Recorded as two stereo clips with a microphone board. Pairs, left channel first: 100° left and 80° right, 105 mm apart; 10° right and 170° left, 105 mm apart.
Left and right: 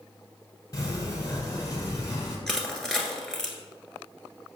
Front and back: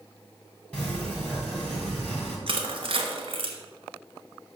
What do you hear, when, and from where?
0.7 s a sliding door: 65° left, 2 m
2.5 s crushing: 175° right, 1.3 m